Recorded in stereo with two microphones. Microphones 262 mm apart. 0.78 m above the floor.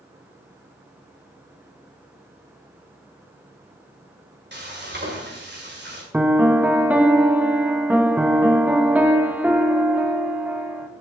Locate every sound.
4.5 s frying: 45° right (ahead or behind), 2.5 m
6.1 s a piano: 5° right (ahead or behind), 1.1 m